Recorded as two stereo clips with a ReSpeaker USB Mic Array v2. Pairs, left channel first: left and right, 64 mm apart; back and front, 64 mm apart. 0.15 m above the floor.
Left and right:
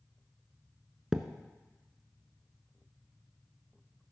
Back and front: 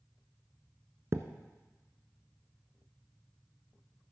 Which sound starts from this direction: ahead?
A thud, at 1.1 s.